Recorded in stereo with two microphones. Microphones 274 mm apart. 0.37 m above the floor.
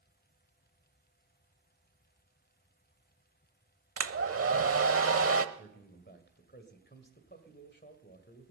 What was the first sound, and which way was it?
A hair dryer, 55° right (ahead or behind).